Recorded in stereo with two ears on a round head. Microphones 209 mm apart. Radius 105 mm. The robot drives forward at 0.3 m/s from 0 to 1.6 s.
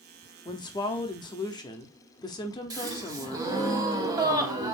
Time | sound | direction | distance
0.5 | a woman speaking | 20° left (ahead or behind) | 0.7 m
2.7 | a gasp | 15° right (ahead or behind) | 0.7 m